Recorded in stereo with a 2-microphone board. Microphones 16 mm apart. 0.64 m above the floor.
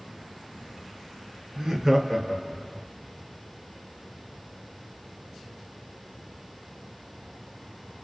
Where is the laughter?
35° right (ahead or behind), 0.6 m; by 2.9 s 10° left (ahead or behind), 1.0 m.